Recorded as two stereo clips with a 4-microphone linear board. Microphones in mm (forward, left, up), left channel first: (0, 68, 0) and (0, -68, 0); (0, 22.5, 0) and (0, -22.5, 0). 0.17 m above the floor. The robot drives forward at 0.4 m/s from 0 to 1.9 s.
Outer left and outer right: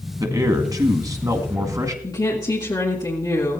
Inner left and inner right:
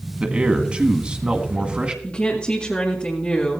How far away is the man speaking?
About 1.6 m.